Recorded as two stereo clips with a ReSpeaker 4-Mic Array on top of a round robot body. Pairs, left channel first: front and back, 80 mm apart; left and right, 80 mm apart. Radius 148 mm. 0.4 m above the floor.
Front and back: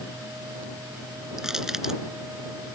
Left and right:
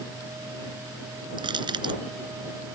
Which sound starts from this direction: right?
Crushing, at 1.4 s.